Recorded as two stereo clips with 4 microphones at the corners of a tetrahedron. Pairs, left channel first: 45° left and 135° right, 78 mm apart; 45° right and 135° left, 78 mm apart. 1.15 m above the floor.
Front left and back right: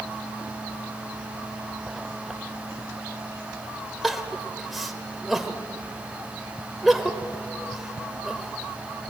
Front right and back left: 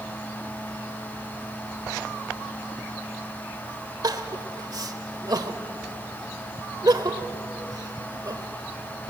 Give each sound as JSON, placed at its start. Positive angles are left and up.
{"t": 4.0, "sound": "crying", "azimuth_deg": 135, "distance_m": 1.3}